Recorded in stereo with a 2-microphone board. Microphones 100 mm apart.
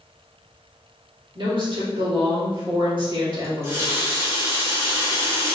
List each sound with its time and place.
1.4 s a woman speaking: 55° right (ahead or behind), 1.9 m
3.4 s a running tap: 30° right (ahead or behind), 1.8 m